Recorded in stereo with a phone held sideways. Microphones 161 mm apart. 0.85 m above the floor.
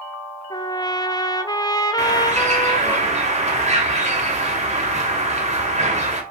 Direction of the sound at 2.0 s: 45° right (ahead or behind).